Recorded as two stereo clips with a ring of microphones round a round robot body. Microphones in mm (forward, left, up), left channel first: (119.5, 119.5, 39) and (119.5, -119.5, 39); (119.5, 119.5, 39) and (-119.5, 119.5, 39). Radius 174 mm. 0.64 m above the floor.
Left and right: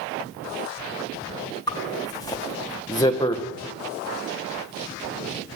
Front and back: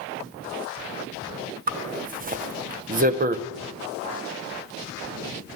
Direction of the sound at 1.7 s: 155° left.